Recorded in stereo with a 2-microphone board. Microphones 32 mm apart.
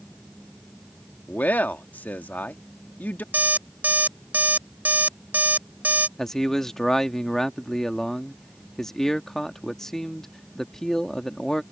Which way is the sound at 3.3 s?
65° right (ahead or behind).